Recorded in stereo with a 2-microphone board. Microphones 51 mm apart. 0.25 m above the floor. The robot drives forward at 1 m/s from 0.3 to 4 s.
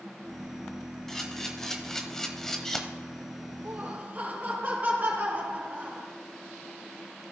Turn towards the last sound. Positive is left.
turn(degrees=-25)  # may be behind; listen again after turning